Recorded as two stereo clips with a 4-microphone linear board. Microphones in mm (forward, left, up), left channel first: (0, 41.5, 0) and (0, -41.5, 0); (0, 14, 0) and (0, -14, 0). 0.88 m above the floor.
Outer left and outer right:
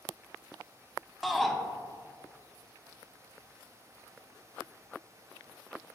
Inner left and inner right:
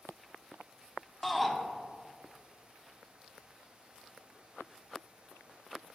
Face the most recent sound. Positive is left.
turn(degrees=0)  # may be behind; listen again after turning